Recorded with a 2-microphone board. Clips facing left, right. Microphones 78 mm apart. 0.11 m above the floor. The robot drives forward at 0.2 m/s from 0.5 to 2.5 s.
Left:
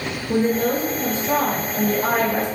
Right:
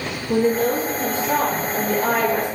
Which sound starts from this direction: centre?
A woman speaking, at 0.3 s.